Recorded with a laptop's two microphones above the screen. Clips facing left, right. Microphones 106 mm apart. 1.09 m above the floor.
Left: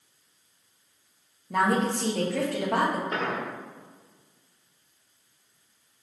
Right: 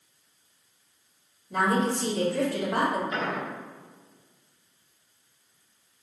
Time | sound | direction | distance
1.5 | a woman speaking | 65° left (ahead or behind) | 1.8 m
3.1 | an explosion | 55° left (ahead or behind) | 1.4 m